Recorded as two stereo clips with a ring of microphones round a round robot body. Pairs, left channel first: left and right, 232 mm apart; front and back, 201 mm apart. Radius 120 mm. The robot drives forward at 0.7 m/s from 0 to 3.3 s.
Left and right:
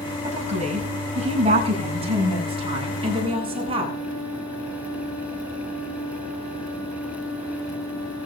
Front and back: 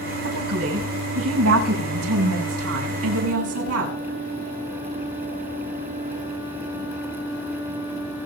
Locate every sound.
0.2 s a woman speaking: 150° right, 7 m; by 4.0 s 160° right, 9 m